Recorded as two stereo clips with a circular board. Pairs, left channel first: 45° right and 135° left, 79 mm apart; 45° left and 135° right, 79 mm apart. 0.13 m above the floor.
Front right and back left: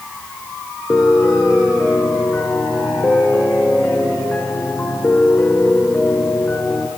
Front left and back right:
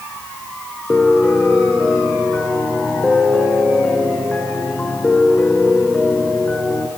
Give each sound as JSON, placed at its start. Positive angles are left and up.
{"t": 0.9, "sound": "a piano", "azimuth_deg": -10, "distance_m": 1.8}